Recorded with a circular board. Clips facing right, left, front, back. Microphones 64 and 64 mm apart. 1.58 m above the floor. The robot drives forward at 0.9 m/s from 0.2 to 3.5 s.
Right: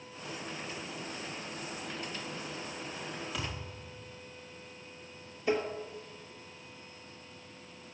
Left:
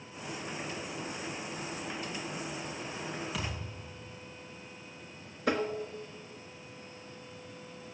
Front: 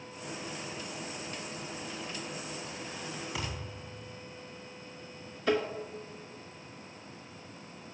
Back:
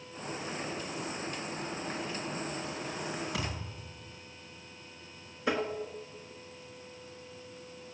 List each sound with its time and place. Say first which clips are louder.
3.3 s a thud: left 1 dB, back 1 dB; 175° left, 6 m
5.5 s tapping: even, front 2 dB; 115° left, 1.8 m